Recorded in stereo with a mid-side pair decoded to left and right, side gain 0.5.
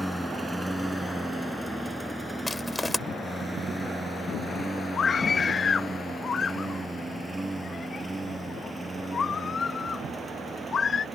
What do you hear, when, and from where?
0.0 s a lawn mower: 5° right; by 11.2 s 25° right
2.5 s crushing: 10° left
5.0 s a scream: 40° left